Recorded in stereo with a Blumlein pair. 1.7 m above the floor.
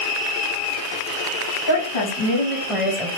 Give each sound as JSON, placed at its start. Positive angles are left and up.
{"t": 1.7, "sound": "a woman speaking", "azimuth_deg": 65, "distance_m": 1.8}